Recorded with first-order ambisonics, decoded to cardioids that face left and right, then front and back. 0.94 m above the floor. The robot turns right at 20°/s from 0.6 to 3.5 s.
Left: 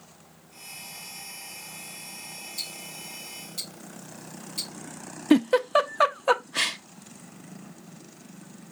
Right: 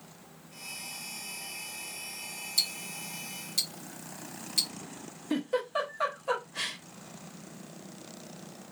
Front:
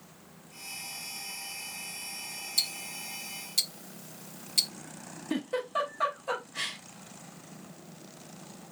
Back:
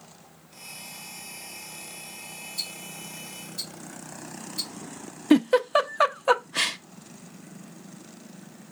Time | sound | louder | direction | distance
2.6 | ticking | right 7 dB, front 4 dB | 45° right | 0.9 m
5.3 | a giggle | left 10 dB, back 11 dB | 135° left | 0.6 m